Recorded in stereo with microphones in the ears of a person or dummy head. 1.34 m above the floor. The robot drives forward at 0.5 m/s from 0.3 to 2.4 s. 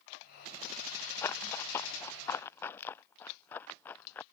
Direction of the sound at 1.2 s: 15° left (ahead or behind).